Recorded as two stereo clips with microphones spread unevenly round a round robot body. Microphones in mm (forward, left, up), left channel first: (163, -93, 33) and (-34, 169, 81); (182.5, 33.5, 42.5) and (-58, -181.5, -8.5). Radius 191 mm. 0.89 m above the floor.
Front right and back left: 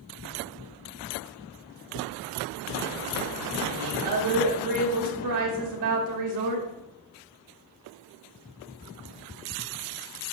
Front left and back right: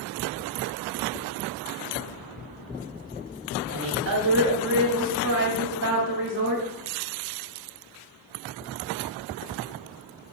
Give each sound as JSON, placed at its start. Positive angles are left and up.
{"t": 3.7, "sound": "a woman speaking", "azimuth_deg": 165, "distance_m": 1.8}